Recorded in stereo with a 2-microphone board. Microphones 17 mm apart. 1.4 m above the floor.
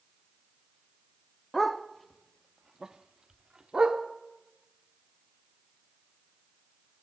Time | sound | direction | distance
1.5 | a dog barking | 25° left (ahead or behind) | 1.0 m